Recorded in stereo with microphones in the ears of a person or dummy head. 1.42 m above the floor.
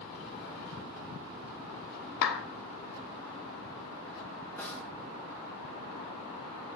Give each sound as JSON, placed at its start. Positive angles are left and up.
{"t": 2.2, "sound": "a clap", "side_deg": 55, "distance_m": 0.7}
{"t": 4.6, "sound": "a snare drum", "side_deg": 10, "distance_m": 4.0}